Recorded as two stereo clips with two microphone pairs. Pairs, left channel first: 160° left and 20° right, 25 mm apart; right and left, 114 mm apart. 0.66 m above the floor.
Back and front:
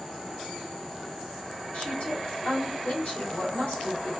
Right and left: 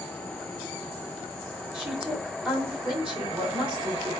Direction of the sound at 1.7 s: 170° left.